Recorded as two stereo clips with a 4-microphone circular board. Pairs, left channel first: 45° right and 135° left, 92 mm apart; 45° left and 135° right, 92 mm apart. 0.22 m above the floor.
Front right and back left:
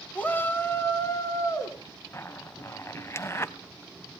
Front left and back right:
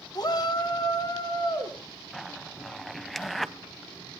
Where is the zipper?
40° right, 0.8 m.